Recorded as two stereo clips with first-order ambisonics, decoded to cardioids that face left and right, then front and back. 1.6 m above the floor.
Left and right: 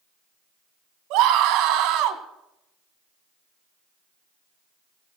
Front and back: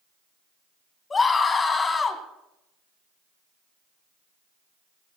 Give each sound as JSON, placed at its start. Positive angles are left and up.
{"t": 1.1, "sound": "a scream", "azimuth_deg": -75, "distance_m": 2.0}